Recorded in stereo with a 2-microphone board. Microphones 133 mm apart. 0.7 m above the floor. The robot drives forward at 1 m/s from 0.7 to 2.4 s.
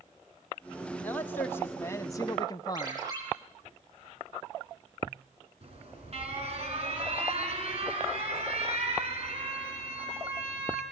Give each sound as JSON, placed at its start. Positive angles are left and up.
{"t": 1.0, "sound": "a man speaking", "side_deg": 15, "distance_m": 2.0}
{"t": 2.7, "sound": "a ringtone", "side_deg": -30, "distance_m": 7.5}
{"t": 5.6, "sound": "an alarm", "side_deg": -50, "distance_m": 5.5}